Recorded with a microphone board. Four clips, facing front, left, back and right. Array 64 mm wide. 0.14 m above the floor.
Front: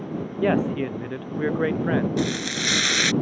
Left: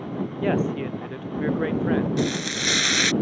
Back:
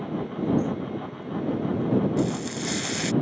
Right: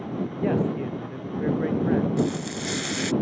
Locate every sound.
0.4 s a man speaking: 20° left
2.2 s frying: 40° left